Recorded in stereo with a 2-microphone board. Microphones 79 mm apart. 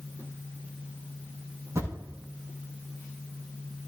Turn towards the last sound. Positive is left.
turn(degrees=-40)  # may be behind; listen again after turning